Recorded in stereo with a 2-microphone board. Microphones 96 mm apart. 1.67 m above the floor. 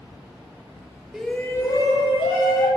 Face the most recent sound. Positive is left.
turn(degrees=65)  # may be behind; listen again after turning